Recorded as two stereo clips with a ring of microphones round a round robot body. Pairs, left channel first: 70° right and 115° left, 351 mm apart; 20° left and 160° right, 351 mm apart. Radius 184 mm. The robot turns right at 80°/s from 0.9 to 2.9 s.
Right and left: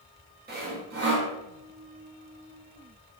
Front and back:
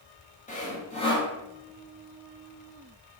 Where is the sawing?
75° left, 0.8 m; by 1.3 s 105° left, 0.8 m.